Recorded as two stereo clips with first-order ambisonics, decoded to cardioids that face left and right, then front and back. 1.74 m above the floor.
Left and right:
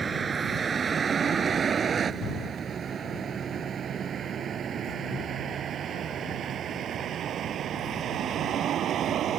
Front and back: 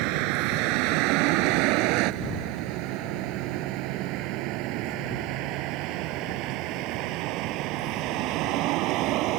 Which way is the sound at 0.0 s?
160° right.